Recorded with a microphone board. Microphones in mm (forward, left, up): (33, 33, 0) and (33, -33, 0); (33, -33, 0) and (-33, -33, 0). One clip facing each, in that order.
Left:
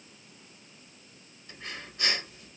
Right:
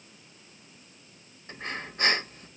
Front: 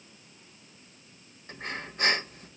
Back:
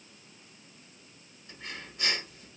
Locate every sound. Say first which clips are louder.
1.5 s breathing: right 6 dB, front 6 dB; 40° right, 0.8 m